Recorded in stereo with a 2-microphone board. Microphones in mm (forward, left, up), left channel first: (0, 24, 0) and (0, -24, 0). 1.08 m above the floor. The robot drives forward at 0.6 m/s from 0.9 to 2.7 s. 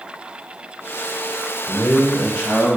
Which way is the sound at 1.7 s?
50° left (ahead or behind).